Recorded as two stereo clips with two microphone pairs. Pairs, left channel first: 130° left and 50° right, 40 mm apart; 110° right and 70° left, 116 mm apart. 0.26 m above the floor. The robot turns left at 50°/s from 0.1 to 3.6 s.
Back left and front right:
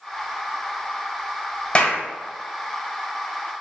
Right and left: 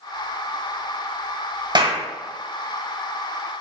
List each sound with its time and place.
1.8 s a clap: 80° left, 0.9 m; by 2.0 s 65° left, 0.9 m